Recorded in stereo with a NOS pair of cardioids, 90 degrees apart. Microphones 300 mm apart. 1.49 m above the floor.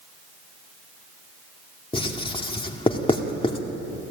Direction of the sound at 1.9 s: 20° left.